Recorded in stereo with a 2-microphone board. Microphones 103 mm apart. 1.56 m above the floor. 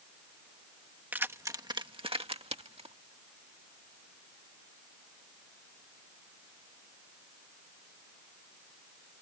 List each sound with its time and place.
1.1 s keys jangling: 20° right (ahead or behind); by 3.0 s 80° right